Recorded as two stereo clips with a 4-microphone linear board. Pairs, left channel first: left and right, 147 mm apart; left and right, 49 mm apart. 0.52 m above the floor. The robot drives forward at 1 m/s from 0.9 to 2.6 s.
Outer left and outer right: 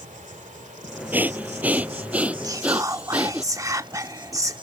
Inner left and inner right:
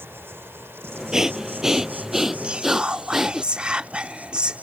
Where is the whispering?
25° right (ahead or behind); by 4.6 s 20° right (ahead or behind).